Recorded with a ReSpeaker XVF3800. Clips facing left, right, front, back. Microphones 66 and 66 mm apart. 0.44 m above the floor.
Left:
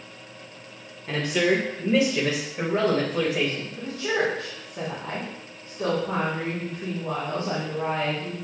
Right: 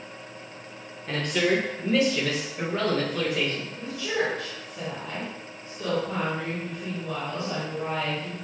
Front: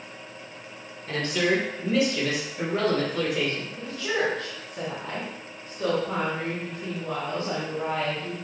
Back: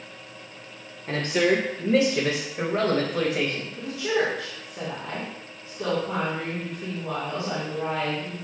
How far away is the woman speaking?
About 3.5 m.